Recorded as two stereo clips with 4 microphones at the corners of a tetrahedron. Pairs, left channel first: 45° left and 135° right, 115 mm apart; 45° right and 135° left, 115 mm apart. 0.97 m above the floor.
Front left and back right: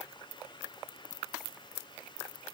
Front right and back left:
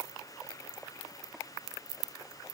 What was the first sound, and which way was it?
Only background noise.